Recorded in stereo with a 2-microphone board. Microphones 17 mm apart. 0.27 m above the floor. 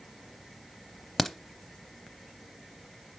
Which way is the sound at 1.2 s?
15° left (ahead or behind).